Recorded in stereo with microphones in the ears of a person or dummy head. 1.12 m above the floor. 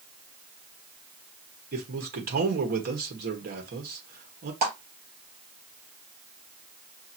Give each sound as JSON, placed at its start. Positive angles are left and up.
{"t": 1.7, "sound": "a man speaking", "side_deg": -50, "distance_m": 1.3}
{"t": 4.6, "sound": "a clap", "side_deg": -50, "distance_m": 3.5}